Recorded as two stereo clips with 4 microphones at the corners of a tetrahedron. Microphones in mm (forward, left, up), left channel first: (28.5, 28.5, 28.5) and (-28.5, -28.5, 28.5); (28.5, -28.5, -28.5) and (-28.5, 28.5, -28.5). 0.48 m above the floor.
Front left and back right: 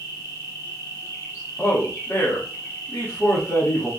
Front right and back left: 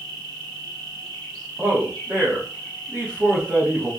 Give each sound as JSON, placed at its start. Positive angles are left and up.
{"t": 0.0, "sound": "an insect", "azimuth_deg": 45, "distance_m": 2.0}
{"t": 1.6, "sound": "a man speaking", "azimuth_deg": 80, "distance_m": 1.1}